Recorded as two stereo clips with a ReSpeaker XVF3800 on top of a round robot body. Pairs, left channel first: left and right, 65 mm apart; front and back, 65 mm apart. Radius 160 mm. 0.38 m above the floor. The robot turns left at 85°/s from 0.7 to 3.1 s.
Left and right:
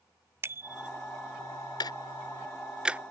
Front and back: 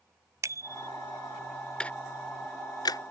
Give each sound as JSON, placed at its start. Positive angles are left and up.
{"t": 0.4, "sound": "a bicycle bell", "azimuth_deg": -145}
{"t": 1.8, "sound": "ticking", "azimuth_deg": 75}